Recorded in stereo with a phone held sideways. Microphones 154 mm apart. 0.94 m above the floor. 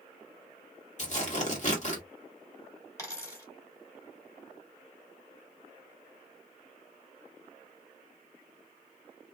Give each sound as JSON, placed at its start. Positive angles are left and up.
{"t": 1.0, "sound": "tearing paper", "side_deg": 50, "distance_m": 1.2}
{"t": 3.0, "sound": "a dropped coin", "side_deg": 20, "distance_m": 1.2}